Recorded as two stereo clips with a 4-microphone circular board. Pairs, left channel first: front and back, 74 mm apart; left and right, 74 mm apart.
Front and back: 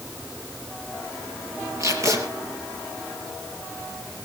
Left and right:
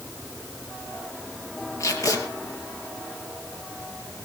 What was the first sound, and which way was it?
Tape being pulled, 135° left.